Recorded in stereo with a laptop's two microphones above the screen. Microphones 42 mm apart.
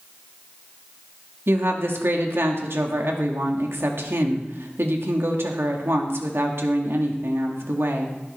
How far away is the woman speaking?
About 1.6 m.